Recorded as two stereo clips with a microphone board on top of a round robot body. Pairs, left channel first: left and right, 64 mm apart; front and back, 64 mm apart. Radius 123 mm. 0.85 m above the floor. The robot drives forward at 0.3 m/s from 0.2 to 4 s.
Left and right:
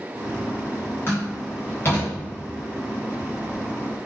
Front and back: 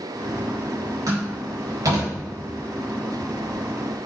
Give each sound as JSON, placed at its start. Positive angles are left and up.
{"t": 1.1, "sound": "a door slam", "azimuth_deg": 145, "distance_m": 4.5}